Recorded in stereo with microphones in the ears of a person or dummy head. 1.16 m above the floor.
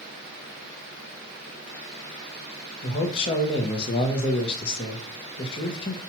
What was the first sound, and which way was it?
A man speaking, 30° left (ahead or behind).